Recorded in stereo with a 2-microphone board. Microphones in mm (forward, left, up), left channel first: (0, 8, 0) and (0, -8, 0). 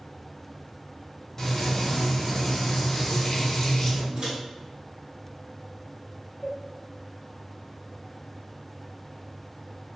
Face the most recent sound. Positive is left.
turn(degrees=15)  # may be behind; listen again after turning